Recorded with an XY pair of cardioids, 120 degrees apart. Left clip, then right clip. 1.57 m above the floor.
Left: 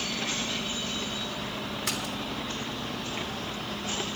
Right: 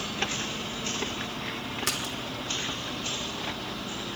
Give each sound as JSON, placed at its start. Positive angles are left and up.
{"t": 1.9, "sound": "a splash", "azimuth_deg": -35, "distance_m": 3.5}